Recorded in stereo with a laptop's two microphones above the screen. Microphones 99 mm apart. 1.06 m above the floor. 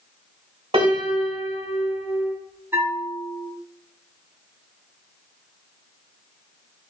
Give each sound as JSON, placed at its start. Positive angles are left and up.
{"t": 0.7, "sound": "a piano", "side_deg": -70, "distance_m": 1.1}
{"t": 2.7, "sound": "a bell", "side_deg": -25, "distance_m": 0.6}